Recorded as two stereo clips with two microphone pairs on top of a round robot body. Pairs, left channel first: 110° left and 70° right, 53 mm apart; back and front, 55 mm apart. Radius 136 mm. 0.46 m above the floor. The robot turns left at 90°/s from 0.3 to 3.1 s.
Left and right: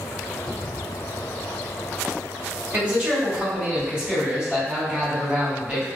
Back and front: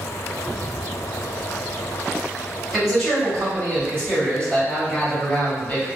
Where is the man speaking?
90° right, 1.9 m; by 5.9 s 125° right, 1.9 m.